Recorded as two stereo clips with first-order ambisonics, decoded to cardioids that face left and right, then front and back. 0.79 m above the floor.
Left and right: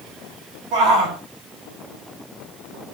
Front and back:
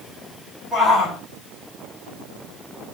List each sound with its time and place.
0.7 s a shout: 80° right, 3.5 m